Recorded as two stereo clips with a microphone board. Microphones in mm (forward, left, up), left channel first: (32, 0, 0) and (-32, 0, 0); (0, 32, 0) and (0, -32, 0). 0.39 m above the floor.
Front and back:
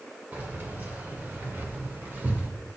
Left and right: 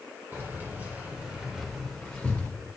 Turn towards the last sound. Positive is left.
turn(degrees=140)